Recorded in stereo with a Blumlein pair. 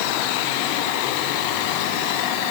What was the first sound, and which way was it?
Only background noise.